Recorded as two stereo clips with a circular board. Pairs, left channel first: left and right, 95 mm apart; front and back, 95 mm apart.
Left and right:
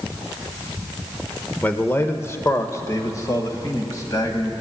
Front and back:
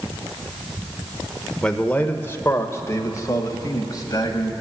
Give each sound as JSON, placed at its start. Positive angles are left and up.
{"t": 1.6, "sound": "a man speaking", "azimuth_deg": 65, "distance_m": 0.8}